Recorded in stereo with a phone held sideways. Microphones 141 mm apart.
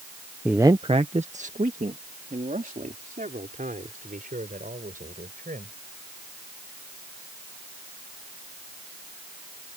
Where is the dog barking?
I don't hear a dog barking.